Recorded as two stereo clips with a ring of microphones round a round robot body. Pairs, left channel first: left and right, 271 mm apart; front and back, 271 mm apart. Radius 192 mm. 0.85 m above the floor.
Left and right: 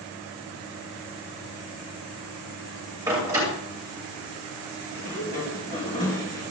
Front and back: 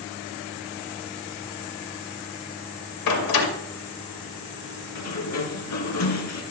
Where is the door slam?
10° right, 2.5 m.